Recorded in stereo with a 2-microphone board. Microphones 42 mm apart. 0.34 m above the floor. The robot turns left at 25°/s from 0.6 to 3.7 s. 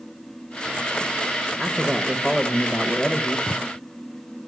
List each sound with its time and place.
1.6 s a man speaking: 5° right (ahead or behind), 0.9 m; by 3.4 s 15° left (ahead or behind), 0.9 m
3.5 s footsteps: 30° left (ahead or behind), 0.6 m; by 3.6 s 25° left (ahead or behind), 0.6 m